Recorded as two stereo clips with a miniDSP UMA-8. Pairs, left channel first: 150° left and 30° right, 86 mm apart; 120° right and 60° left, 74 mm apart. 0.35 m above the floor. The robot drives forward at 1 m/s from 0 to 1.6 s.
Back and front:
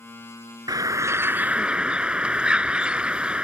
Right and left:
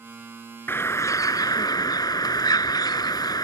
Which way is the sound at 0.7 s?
65° right.